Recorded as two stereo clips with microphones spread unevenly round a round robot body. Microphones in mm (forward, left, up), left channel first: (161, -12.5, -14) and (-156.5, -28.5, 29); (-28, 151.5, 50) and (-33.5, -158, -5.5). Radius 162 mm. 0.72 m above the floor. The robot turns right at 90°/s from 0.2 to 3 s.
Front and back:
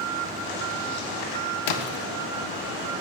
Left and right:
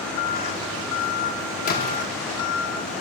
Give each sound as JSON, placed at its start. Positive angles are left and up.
{"t": 1.7, "sound": "a splash", "azimuth_deg": 20, "distance_m": 0.7}